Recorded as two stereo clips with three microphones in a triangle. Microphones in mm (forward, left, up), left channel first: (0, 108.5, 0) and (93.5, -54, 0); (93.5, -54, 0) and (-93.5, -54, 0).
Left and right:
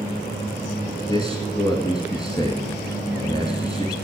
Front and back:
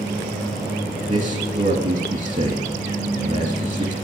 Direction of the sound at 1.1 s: 175° left.